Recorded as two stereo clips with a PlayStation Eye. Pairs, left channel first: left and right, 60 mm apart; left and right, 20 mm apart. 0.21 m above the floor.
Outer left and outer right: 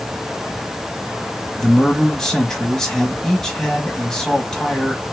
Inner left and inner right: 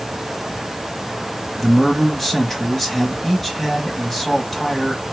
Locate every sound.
1.6 s a man speaking: 10° left (ahead or behind), 1.0 m